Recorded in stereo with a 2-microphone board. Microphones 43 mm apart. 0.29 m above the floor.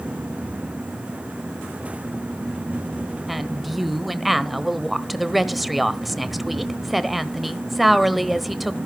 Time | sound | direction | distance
3.3 | a woman speaking | centre (ahead or behind) | 1.1 m